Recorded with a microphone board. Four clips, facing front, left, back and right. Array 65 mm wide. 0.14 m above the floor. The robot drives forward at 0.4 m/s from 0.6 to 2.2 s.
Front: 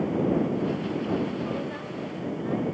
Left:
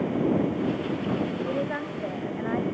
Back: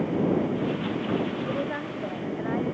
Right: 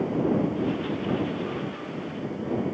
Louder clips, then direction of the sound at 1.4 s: Left 4 dB, back 2 dB; 120° left.